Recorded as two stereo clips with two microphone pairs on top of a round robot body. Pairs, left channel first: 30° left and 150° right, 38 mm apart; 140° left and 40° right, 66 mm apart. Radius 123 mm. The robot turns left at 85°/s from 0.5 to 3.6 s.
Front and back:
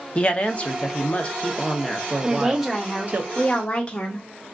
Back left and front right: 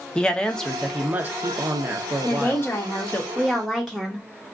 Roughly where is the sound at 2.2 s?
Behind.